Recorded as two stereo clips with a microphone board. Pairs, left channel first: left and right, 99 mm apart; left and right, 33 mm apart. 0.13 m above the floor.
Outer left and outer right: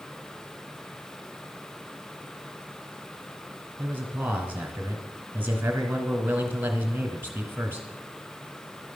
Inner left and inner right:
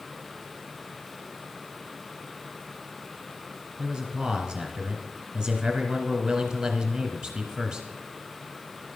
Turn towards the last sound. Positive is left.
turn(degrees=-20)  # may be behind; listen again after turning